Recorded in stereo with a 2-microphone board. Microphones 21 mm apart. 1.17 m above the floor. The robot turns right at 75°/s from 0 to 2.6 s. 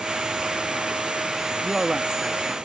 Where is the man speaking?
45° right; by 2.6 s 25° left.